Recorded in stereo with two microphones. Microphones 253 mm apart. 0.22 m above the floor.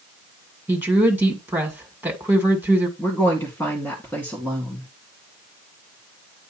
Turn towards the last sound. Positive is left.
turn(degrees=10)  # may be behind; listen again after turning